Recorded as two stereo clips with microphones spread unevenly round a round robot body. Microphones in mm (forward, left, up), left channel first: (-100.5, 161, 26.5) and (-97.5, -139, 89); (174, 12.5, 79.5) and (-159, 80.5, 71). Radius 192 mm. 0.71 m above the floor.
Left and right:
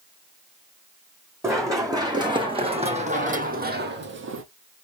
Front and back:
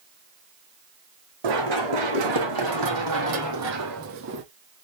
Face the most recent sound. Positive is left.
turn(degrees=-130)